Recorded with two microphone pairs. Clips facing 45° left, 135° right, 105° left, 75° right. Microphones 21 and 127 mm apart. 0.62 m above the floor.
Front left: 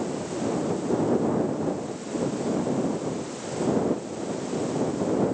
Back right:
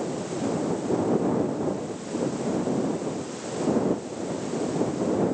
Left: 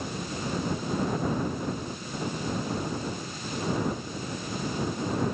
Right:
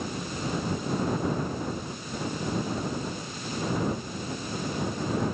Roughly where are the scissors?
I don't hear scissors.